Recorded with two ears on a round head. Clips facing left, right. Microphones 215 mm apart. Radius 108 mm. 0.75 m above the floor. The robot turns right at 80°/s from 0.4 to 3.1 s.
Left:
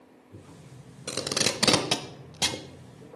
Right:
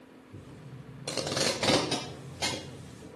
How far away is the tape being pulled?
About 1.1 m.